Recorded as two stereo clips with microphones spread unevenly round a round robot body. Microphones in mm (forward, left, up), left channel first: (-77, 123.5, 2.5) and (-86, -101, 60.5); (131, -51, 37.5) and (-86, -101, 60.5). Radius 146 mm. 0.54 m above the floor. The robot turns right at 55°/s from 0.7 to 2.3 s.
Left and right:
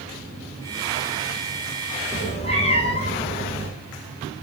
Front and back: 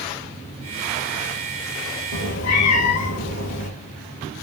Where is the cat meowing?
5° left, 1.6 m; by 3.7 s 15° left, 1.6 m.